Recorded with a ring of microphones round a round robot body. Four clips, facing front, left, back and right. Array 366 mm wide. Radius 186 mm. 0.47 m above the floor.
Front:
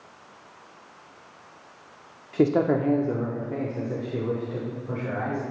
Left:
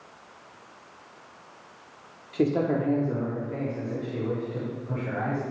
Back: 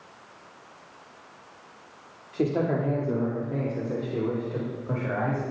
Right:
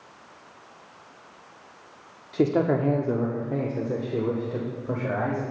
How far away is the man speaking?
About 0.8 m.